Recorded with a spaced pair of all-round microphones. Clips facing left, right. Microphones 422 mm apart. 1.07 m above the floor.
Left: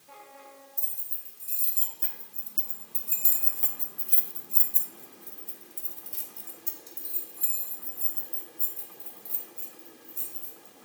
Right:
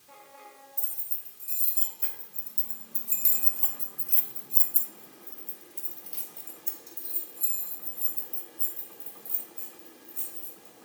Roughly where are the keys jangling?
Centre.